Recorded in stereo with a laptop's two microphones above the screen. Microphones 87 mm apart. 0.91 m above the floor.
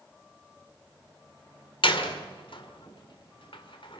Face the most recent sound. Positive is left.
turn(degrees=75)  # may be behind; listen again after turning